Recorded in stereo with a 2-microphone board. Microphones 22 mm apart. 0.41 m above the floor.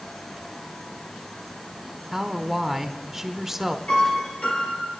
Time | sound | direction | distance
2.1 | a woman speaking | 15° right (ahead or behind) | 1.1 m
3.9 | a piano | 65° left (ahead or behind) | 5.5 m